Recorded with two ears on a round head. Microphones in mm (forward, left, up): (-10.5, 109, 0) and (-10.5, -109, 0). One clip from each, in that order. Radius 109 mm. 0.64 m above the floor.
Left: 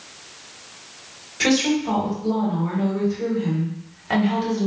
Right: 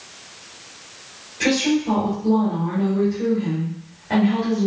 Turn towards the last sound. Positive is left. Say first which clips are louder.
# even
turn(degrees=55)  # may be behind; listen again after turning